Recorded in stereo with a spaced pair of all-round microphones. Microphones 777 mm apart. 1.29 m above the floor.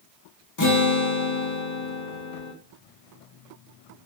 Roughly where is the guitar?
Left.